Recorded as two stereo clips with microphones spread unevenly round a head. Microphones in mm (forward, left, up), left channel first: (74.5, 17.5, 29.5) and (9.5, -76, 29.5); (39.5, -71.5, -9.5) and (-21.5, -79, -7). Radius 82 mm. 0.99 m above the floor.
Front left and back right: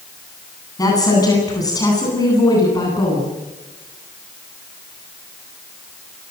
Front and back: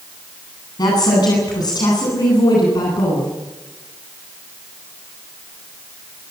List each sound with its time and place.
0.8 s a woman speaking: 5° right, 10 m